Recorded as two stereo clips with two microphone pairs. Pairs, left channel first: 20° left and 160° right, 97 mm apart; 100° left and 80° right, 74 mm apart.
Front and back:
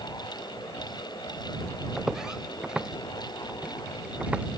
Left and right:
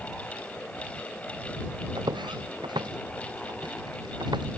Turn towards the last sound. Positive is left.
turn(degrees=-80)